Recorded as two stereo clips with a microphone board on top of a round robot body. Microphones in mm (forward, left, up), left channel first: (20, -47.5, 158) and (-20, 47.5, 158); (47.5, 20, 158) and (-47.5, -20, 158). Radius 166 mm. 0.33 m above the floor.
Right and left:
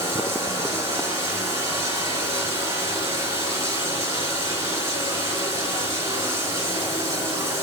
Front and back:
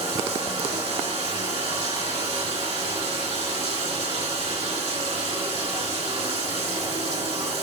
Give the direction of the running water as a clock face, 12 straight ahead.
6 o'clock.